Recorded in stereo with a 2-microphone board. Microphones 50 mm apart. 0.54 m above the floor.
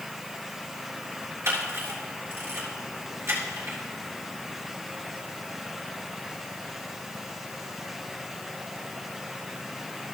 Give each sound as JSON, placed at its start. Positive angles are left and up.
{"t": 1.4, "sound": "a camera shutter", "side_deg": -65, "distance_m": 3.5}